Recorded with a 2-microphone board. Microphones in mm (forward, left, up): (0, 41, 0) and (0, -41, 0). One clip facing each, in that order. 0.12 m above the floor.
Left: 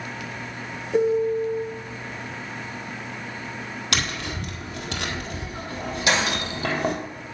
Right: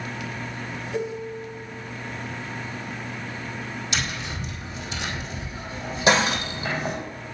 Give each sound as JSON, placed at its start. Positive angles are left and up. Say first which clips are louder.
{"t": 0.9, "sound": "a piano", "louder": "left 11 dB", "side_deg": 40, "distance_m": 0.8}
{"t": 3.9, "sound": "tapping", "louder": "left 3 dB", "side_deg": 70, "distance_m": 1.6}
{"t": 6.1, "sound": "breaking glass", "louder": "right 4 dB", "side_deg": -25, "distance_m": 2.5}